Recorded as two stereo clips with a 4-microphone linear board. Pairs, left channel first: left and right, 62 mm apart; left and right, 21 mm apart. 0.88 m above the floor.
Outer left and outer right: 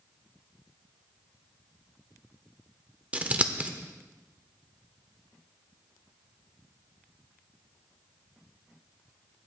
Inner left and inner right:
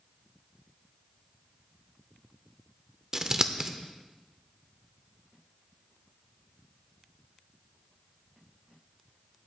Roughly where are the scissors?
Right.